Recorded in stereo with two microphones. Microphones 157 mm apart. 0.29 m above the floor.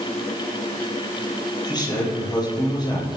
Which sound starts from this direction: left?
A man speaking, at 1.6 s.